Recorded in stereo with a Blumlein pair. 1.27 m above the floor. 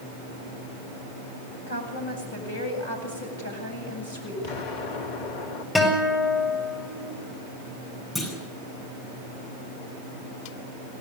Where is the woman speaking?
60° left, 8 m.